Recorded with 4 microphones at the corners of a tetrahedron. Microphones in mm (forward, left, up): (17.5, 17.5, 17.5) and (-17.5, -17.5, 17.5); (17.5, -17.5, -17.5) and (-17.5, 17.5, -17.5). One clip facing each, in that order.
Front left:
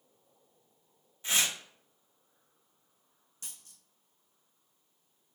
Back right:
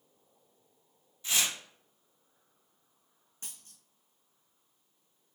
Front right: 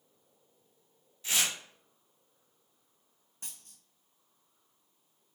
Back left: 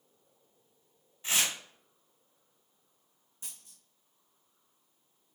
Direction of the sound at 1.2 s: 90° left.